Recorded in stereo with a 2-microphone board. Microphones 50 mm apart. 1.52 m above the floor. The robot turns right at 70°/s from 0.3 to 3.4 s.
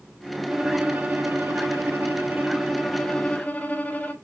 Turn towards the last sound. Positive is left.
turn(degrees=35)